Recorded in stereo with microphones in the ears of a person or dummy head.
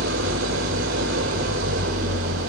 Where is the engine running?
80° right, 3 m.